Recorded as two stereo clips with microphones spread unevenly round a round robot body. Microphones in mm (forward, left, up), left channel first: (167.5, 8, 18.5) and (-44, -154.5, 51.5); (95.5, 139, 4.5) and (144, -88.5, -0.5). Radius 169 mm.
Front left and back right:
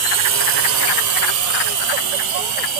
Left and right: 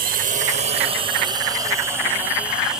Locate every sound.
0.0 s a drone: 130° right; by 2.8 s 165° right